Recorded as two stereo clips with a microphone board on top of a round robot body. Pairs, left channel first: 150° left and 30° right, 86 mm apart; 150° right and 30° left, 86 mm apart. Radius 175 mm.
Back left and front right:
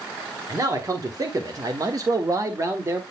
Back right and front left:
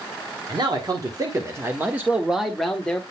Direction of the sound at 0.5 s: 15° left.